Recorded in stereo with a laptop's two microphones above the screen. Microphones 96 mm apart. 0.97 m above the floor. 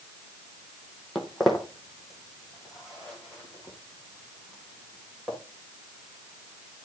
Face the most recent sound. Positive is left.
turn(degrees=-10)  # may be behind; listen again after turning